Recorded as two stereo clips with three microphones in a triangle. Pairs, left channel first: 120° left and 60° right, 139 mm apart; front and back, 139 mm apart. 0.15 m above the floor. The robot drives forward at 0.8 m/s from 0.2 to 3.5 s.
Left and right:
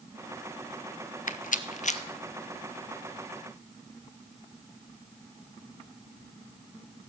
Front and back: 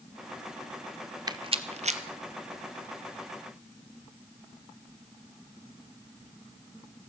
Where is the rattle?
120° left, 0.7 m; by 2.0 s 150° left, 1.1 m.